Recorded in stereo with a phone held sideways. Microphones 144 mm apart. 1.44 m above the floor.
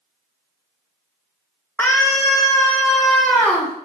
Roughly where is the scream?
Centre.